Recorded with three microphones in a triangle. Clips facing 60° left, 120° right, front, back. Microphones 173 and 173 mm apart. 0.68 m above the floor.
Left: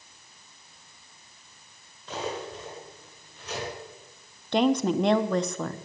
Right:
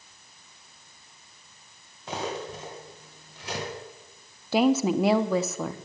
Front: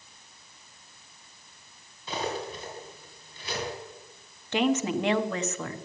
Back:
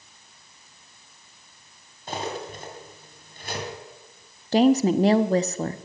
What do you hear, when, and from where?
2.1 s cutlery clinking: 135° right, 3 m
4.5 s a woman speaking: 160° left, 0.7 m